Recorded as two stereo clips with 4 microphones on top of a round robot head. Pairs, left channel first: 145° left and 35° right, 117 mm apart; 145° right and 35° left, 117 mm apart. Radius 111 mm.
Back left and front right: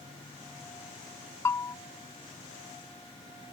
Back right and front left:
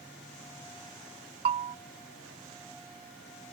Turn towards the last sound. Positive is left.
turn(degrees=75)